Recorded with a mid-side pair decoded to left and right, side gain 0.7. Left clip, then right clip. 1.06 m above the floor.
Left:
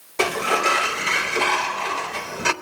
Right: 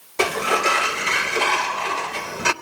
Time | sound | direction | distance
0.2 | a sliding door | 5° right | 0.5 m